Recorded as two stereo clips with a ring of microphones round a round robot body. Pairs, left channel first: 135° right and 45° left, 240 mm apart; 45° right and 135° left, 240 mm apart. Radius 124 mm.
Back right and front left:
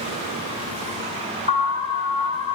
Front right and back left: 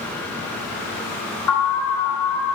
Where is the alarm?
20° right, 3.5 m.